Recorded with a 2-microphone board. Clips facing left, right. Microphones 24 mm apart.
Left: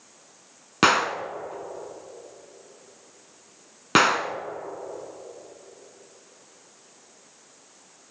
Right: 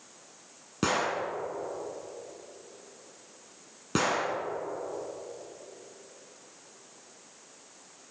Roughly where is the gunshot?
Left.